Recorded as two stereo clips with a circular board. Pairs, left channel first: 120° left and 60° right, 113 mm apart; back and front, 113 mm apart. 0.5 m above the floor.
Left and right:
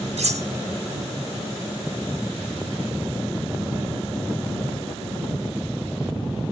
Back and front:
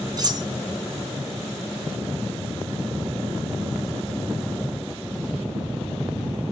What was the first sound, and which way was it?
Cutlery clinking, 50° right.